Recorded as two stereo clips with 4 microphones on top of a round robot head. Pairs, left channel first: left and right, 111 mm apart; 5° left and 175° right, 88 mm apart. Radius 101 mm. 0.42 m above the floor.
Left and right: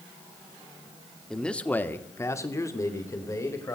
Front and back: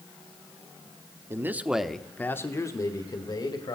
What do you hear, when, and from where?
1.3 s a man speaking: 170° left, 1.1 m; by 3.8 s 30° left, 2 m